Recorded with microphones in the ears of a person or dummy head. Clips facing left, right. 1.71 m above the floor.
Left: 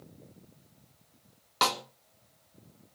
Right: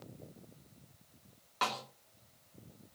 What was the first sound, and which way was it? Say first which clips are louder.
A snare drum: left 7 dB; 55° left (ahead or behind).